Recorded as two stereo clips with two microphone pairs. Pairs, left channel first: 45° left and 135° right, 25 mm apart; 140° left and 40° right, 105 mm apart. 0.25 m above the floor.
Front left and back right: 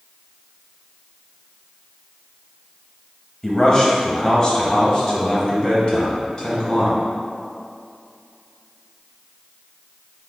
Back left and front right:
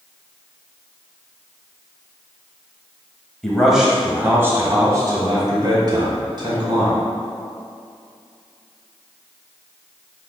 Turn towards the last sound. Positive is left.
turn(degrees=-10)